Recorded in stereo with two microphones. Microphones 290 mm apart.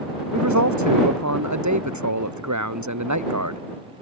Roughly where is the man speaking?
Right.